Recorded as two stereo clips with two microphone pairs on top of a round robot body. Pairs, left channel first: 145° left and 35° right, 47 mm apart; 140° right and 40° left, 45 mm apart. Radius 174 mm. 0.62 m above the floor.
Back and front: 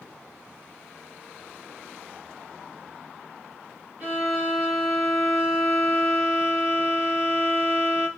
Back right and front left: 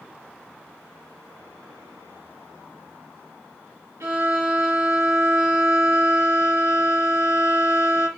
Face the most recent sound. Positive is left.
turn(degrees=30)